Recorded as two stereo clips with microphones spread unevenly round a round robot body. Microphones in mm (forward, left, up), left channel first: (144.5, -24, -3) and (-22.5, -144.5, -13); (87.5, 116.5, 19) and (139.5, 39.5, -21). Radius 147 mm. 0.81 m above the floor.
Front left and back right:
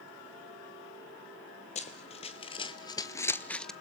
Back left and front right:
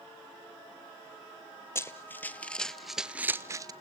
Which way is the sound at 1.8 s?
90° left.